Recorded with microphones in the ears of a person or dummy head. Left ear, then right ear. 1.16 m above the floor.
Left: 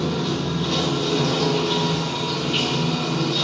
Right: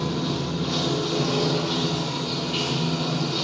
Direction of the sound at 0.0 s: 10° left (ahead or behind).